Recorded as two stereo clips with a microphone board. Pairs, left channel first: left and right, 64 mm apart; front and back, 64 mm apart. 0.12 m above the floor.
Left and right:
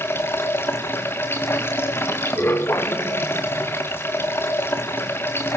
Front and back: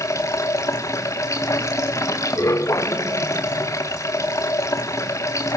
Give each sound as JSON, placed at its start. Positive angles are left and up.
{"t": 0.0, "sound": "running water", "azimuth_deg": 40, "distance_m": 2.5}